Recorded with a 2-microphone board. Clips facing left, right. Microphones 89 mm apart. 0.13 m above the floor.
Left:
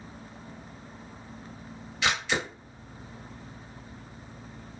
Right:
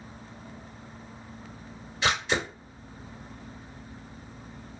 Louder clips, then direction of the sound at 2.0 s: Right 1 dB; 35° right (ahead or behind).